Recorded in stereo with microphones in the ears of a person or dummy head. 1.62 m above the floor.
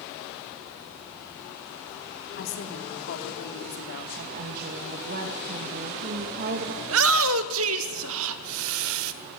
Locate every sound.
2.4 s a woman speaking: 60° left (ahead or behind), 3.5 m
4.2 s a woman speaking: 55° right (ahead or behind), 2.5 m
6.8 s a shout: 80° right, 1.4 m